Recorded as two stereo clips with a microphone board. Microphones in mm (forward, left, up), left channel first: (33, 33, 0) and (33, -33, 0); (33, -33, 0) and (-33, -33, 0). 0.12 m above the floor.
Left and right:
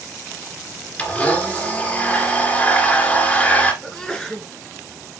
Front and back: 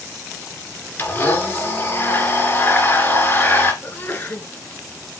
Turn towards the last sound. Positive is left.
turn(degrees=15)